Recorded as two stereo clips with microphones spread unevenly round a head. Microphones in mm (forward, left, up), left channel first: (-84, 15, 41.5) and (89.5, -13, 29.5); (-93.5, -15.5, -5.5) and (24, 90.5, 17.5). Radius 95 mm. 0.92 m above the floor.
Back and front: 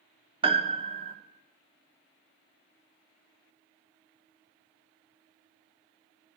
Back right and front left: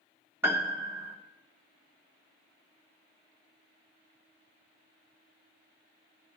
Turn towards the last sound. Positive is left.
turn(degrees=-40)